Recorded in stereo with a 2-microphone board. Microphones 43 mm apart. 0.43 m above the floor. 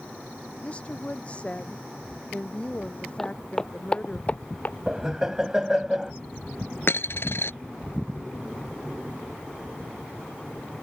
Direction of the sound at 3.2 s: 10° left (ahead or behind).